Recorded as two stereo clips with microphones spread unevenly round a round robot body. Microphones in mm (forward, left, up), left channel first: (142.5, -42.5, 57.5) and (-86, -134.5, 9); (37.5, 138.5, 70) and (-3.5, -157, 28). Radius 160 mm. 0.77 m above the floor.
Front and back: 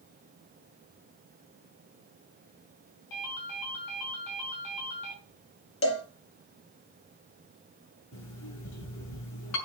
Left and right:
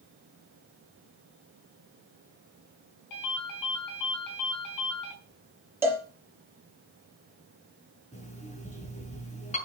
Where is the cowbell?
15° right, 5 m.